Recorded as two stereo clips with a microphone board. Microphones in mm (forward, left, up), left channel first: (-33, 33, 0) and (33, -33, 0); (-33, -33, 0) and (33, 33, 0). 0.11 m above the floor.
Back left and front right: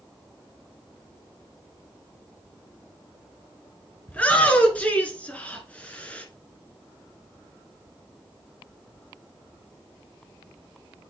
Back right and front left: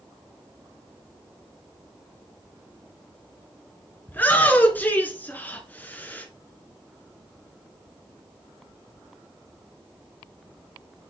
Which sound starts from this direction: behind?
A shout, at 4.1 s.